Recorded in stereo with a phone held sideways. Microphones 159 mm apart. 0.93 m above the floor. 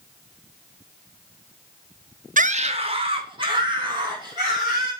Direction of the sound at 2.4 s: 55° right (ahead or behind).